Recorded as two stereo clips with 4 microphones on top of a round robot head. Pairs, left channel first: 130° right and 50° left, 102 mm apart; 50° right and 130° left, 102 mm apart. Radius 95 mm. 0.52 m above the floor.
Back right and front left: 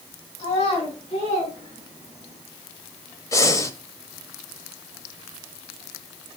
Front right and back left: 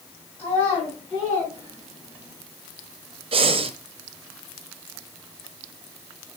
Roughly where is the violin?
I don't hear a violin.